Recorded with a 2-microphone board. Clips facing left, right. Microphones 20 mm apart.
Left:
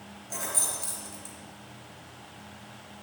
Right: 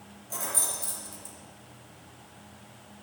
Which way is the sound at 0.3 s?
15° left (ahead or behind).